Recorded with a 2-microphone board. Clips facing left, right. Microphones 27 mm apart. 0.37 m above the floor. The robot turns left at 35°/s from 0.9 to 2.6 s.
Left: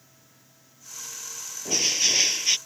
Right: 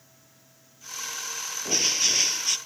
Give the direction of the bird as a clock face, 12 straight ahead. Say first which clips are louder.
Left 1 dB; 6 o'clock.